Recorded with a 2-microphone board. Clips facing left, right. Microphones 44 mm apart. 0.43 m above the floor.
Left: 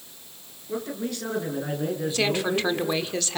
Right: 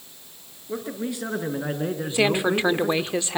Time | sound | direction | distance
0.7 | a man speaking | 15° right (ahead or behind) | 5.5 m
2.1 | a woman speaking | 20° right (ahead or behind) | 1.1 m